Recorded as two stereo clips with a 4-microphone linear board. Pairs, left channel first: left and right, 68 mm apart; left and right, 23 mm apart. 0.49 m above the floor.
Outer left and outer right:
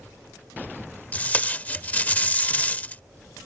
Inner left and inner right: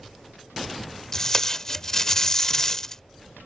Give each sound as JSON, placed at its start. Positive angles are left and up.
{"t": 1.1, "sound": "tape being pulled", "side_deg": 25}